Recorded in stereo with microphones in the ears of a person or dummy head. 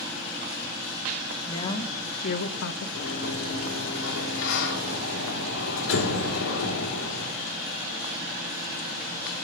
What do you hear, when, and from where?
1.5 s a woman speaking: 15° left (ahead or behind), 1.1 m; by 2.9 s 70° left (ahead or behind), 1.0 m
3.0 s a sliding door: 75° left (ahead or behind), 2.0 m